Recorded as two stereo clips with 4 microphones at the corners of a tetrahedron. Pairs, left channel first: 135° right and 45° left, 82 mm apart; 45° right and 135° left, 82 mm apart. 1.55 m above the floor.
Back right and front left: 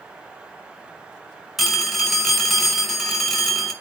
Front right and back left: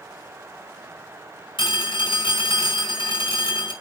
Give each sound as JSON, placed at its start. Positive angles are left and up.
{"t": 1.6, "sound": "a phone ringing", "azimuth_deg": -40, "distance_m": 5.0}